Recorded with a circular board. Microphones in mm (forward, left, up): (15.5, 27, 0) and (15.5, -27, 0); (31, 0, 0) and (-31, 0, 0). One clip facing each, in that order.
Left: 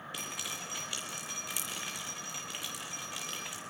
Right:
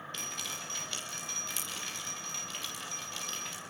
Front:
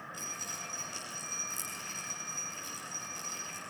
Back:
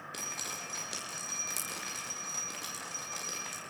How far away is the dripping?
About 9 m.